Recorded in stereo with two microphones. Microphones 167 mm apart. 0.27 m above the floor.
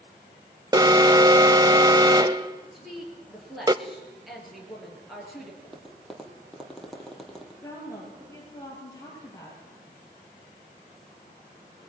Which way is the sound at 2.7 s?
Centre (ahead or behind).